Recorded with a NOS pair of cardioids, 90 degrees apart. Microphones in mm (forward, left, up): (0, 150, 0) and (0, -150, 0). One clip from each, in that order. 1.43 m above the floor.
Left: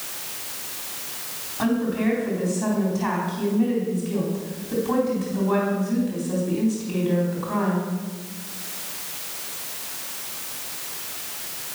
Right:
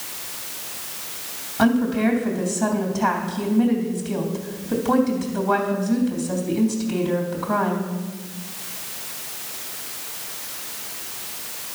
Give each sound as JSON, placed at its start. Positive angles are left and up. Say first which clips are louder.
{"t": 1.6, "sound": "a woman speaking", "louder": "right 4 dB", "azimuth_deg": -55, "distance_m": 3.5}